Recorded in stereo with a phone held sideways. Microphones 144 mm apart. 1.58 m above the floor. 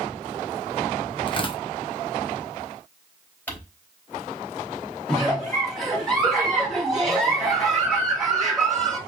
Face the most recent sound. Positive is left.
turn(degrees=0)  # may be behind; listen again after turning